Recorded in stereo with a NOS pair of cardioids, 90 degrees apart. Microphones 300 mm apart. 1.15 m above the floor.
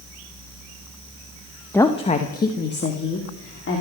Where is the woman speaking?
5° left, 1.0 m; by 3.8 s 45° left, 3 m.